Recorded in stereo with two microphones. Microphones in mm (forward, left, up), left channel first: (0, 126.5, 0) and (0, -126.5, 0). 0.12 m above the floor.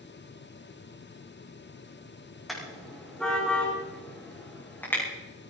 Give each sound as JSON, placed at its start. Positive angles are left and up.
{"t": 2.5, "sound": "a car horn", "side_deg": 0, "distance_m": 5.0}